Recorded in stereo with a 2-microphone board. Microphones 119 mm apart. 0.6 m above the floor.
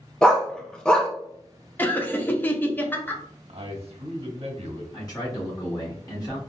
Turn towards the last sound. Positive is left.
turn(degrees=35)  # may be behind; listen again after turning